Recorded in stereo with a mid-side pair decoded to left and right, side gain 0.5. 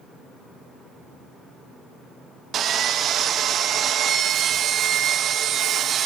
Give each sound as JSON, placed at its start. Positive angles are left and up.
{"t": 2.5, "sound": "sawing", "azimuth_deg": -55, "distance_m": 1.4}